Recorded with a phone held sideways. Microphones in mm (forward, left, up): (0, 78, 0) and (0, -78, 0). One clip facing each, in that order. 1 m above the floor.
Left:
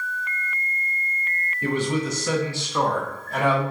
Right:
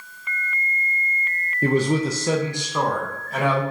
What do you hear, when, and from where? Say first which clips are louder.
1.6 s a man speaking: right 4 dB; 40° right (ahead or behind), 0.6 m; by 3.6 s centre (ahead or behind), 1.2 m